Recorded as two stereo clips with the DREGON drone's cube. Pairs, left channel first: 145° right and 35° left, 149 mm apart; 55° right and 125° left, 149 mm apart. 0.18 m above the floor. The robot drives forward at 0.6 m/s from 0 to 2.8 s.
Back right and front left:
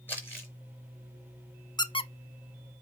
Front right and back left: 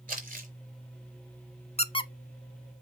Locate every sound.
0.1 s crumpling: 140° left, 4.5 m
1.8 s a squeak: 90° right, 0.6 m; by 2.1 s 110° right, 0.6 m